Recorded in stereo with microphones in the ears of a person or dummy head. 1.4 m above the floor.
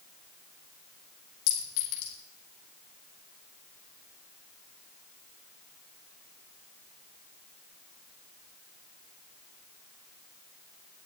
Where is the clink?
70° left (ahead or behind), 2.5 m.